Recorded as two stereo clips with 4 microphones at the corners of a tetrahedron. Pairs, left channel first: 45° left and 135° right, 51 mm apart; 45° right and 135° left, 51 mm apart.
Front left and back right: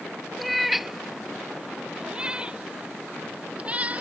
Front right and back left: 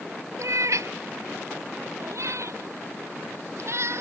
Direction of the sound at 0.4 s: 135° left.